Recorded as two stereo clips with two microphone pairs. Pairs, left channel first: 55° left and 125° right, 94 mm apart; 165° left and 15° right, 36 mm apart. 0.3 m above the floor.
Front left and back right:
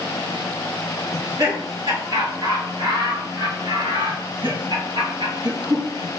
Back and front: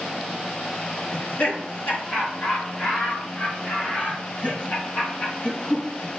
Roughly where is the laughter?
Behind.